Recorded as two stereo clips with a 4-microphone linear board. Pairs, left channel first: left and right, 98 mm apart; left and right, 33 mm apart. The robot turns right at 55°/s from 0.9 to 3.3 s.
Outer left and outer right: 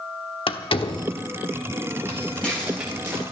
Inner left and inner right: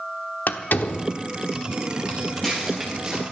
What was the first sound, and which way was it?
A door slam, 65° left (ahead or behind).